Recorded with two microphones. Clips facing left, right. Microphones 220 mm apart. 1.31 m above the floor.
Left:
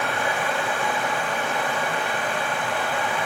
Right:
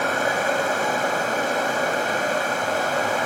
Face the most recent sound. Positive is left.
turn(degrees=-45)  # may be behind; listen again after turning